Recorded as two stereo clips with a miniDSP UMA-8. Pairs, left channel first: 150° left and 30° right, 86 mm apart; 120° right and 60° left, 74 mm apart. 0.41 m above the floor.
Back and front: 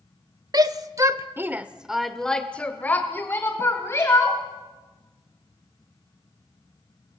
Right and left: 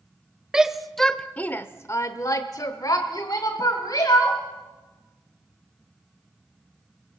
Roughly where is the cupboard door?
I don't hear a cupboard door.